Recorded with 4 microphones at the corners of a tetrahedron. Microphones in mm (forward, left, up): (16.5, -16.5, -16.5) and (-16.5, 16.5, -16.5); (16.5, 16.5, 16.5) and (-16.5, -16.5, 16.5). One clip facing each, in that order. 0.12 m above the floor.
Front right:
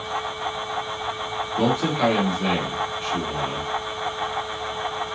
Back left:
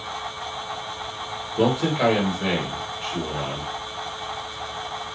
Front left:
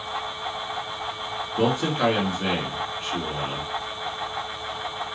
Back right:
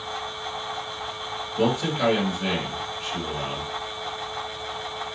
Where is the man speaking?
75° left, 1.8 m.